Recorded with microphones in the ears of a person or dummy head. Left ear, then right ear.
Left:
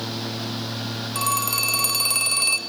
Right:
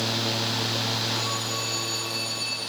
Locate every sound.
1.1 s a phone ringing: 45° left (ahead or behind), 2 m